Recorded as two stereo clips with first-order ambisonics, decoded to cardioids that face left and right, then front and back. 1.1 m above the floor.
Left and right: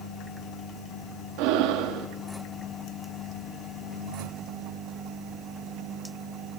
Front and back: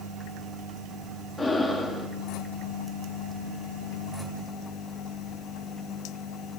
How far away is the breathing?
About 1.3 m.